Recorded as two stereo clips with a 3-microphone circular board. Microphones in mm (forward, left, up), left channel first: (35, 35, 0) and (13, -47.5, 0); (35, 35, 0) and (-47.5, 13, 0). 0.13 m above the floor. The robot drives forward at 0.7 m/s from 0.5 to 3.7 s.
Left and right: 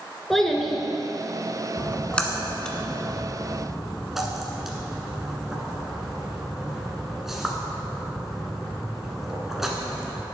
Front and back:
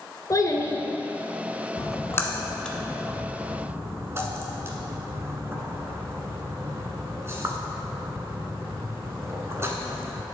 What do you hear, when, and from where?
0.3 s a child speaking: 10° right, 1.1 m; by 0.8 s 15° right, 1.0 m
1.8 s a splash: 5° left, 1.2 m; by 10.2 s 170° left, 1.1 m